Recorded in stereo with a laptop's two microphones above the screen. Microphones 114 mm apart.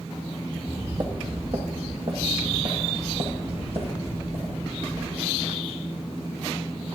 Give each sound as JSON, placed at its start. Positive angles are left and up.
{"t": 0.6, "sound": "footsteps", "side_deg": -50, "distance_m": 2.0}